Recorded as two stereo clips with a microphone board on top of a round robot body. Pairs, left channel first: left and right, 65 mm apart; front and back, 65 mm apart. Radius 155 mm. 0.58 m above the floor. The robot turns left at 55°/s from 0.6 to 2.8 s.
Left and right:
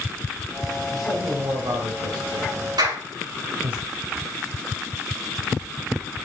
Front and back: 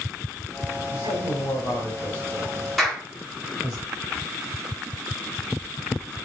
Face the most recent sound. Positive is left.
turn(degrees=-90)